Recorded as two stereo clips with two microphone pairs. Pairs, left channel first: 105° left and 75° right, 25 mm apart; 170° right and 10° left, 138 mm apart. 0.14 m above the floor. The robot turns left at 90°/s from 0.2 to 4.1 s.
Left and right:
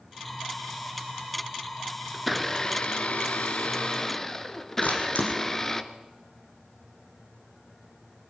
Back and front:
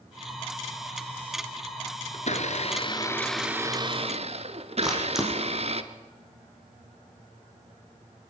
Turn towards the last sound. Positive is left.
turn(degrees=100)